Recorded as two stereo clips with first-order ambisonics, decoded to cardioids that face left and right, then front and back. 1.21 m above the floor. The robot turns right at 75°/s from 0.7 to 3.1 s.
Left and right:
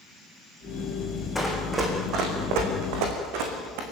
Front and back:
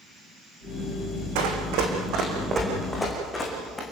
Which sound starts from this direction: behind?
Running footsteps, at 1.4 s.